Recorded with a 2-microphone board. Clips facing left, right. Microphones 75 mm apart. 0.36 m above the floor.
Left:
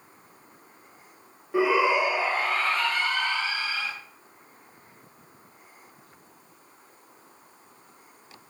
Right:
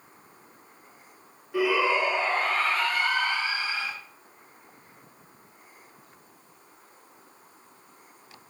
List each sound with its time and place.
1.5 s a shout: 25° left (ahead or behind), 0.9 m; by 3.9 s 10° right (ahead or behind), 3.5 m